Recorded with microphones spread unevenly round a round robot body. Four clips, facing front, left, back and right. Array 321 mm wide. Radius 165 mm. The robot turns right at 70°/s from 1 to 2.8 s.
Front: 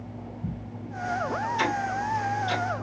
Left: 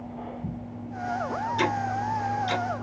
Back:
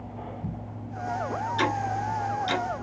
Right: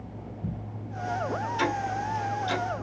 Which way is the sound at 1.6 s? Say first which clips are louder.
Left 2 dB, back 2 dB; 105° left.